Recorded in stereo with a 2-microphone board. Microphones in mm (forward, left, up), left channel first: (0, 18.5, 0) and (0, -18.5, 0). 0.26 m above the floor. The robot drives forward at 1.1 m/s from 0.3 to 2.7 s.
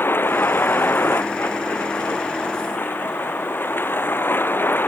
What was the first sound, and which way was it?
A vehicle, 80° left.